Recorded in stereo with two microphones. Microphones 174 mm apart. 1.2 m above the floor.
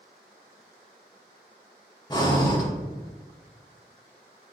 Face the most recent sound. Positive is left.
turn(degrees=25)  # may be behind; listen again after turning